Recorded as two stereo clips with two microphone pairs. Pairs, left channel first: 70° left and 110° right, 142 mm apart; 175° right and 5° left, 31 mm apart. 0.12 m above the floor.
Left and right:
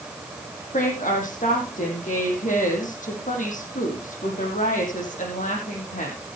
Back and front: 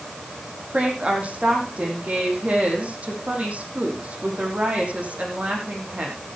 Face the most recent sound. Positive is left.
turn(degrees=50)